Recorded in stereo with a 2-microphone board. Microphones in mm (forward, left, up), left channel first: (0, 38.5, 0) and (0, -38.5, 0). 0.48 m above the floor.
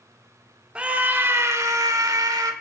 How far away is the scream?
About 0.9 m.